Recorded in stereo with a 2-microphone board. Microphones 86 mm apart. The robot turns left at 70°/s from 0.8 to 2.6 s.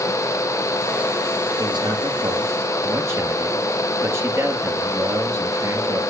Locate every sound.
1.6 s a man speaking: 70° right, 2 m; by 6.0 s 140° right, 2 m